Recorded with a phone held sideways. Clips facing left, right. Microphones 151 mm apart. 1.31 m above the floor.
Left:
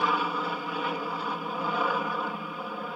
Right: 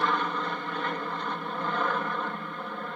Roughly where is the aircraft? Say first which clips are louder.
Even; centre.